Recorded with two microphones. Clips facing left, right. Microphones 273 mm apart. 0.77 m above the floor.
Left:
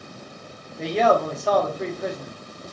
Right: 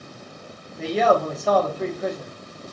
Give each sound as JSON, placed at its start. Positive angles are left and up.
{"t": 0.8, "sound": "a man speaking", "side_deg": 0, "distance_m": 0.9}